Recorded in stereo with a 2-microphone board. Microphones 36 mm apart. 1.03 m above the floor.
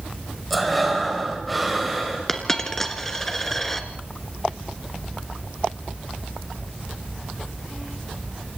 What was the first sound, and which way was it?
Breathing, centre (ahead or behind).